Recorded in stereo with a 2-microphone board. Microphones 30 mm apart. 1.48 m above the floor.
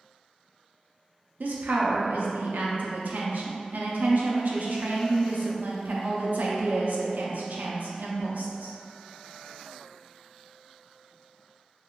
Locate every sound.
1.4 s a woman speaking: 80° right, 0.6 m